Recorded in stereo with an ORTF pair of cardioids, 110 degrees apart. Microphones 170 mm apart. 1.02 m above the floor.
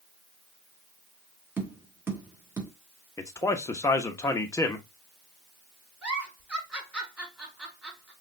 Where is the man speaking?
20° left, 1.0 m.